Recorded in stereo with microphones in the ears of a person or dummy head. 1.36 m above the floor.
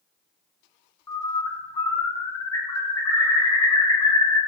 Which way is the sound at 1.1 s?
20° left (ahead or behind).